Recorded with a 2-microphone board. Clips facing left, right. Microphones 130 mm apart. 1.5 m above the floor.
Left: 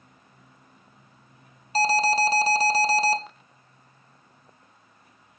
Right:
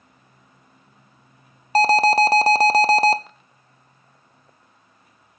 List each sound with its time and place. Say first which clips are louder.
1.8 s an alarm: right 6 dB; 65° right (ahead or behind), 0.6 m